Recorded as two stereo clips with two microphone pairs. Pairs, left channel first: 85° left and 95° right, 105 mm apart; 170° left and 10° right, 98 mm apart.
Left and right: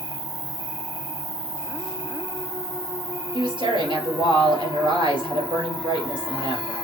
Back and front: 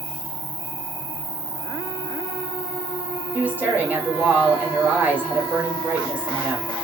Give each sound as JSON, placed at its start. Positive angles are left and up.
{"t": 0.0, "sound": "an insect", "azimuth_deg": -40, "distance_m": 2.0}
{"t": 3.3, "sound": "a woman speaking", "azimuth_deg": -80, "distance_m": 2.0}